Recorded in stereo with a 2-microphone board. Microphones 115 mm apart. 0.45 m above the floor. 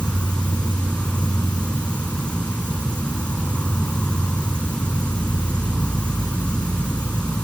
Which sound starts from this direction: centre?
An insect, at 0.0 s.